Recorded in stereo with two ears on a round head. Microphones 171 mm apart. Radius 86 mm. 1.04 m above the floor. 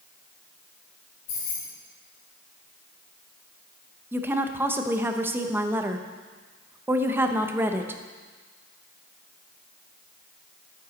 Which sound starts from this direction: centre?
A woman speaking, at 4.1 s.